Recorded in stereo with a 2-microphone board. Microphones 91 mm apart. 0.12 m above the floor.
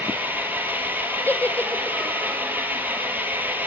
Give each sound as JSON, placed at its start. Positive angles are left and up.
{"t": 0.0, "sound": "an engine running", "side_deg": -20, "distance_m": 1.2}
{"t": 1.3, "sound": "a giggle", "side_deg": 20, "distance_m": 0.5}